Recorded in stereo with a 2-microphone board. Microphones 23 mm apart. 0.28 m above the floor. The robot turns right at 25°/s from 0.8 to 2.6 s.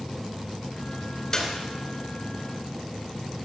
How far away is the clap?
About 2.5 m.